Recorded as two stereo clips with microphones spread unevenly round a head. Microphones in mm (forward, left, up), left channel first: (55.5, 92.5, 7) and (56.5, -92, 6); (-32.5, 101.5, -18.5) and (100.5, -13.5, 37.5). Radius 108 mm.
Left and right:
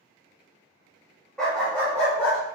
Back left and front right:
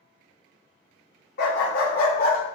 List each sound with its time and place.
1.4 s a dog barking: 175° left, 1.3 m; by 2.4 s 165° left, 1.7 m